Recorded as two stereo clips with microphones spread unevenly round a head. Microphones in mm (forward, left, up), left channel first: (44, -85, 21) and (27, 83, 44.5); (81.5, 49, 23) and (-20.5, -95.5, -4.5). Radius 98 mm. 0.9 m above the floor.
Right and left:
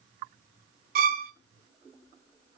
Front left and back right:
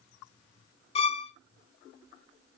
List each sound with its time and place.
0.9 s a violin: 115° left, 1.3 m